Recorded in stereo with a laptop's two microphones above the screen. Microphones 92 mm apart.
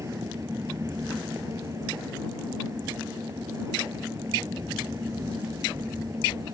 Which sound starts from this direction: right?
A fan, at 0.0 s.